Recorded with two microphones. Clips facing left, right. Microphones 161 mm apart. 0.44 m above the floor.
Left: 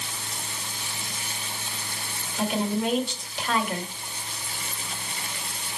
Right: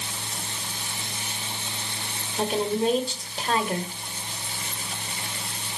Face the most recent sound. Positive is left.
turn(degrees=-35)  # may be behind; listen again after turning